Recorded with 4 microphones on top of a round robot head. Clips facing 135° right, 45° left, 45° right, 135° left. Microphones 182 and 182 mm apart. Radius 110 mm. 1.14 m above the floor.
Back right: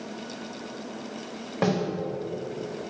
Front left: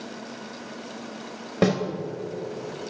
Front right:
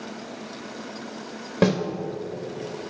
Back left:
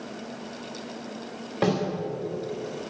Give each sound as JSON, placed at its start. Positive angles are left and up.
{"t": 1.6, "sound": "a snare drum", "azimuth_deg": -10, "distance_m": 2.5}